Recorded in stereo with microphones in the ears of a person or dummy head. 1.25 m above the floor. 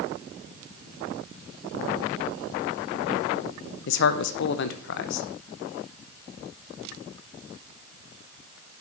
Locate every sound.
3.9 s a man speaking: 60° left (ahead or behind), 0.7 m